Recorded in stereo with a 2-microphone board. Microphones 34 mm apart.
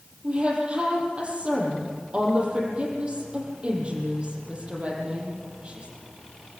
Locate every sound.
0.2 s a woman speaking: 35° right (ahead or behind), 9 m